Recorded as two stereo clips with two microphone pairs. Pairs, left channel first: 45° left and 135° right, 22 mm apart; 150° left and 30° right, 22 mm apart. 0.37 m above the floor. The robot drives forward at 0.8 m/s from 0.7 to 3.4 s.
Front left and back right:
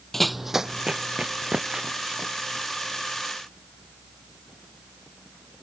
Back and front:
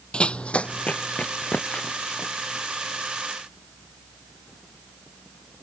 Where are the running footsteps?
115° left; by 3.2 s straight behind.